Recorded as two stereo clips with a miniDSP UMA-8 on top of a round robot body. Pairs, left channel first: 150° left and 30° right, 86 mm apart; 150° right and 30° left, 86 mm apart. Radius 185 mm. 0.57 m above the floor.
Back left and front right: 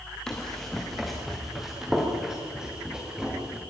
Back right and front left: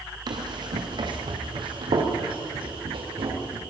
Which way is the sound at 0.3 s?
70° left.